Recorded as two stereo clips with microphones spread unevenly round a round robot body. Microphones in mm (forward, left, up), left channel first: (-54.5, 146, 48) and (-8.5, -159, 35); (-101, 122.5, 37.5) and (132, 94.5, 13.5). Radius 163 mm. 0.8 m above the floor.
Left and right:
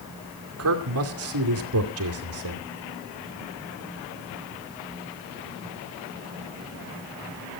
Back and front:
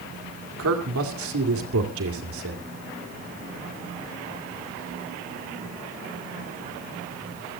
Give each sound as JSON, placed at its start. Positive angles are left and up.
{"t": 0.6, "sound": "a man speaking", "azimuth_deg": -40, "distance_m": 2.5}